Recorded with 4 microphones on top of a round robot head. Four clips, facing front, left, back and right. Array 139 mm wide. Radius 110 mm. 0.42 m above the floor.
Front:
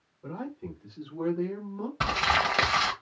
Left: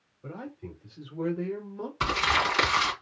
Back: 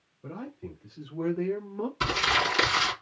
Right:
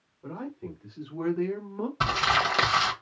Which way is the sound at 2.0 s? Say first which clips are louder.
Right 1 dB, front 2 dB; 45° right.